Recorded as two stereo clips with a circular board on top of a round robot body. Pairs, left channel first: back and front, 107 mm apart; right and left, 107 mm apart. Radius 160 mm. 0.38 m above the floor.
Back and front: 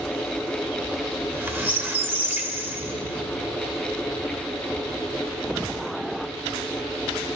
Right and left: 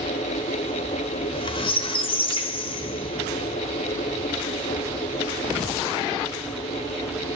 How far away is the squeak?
About 1.1 m.